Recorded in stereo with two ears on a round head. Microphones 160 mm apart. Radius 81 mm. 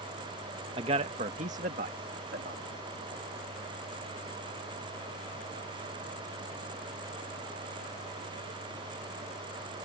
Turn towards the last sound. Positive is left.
turn(degrees=-55)  # may be behind; listen again after turning